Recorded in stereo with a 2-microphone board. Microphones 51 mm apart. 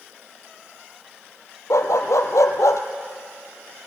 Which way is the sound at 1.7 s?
80° left.